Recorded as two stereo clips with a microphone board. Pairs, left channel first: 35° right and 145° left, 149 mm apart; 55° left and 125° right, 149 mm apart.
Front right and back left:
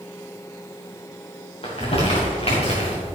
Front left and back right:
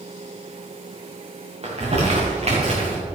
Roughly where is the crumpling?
Right.